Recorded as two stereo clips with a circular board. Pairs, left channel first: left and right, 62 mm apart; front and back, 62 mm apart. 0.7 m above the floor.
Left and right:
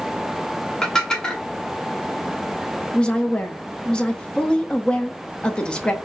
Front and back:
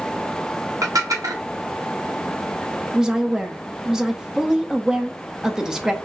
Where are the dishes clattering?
165° left, 0.8 m.